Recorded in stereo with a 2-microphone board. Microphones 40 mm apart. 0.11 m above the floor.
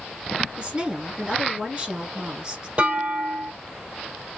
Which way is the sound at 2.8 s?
35° right (ahead or behind).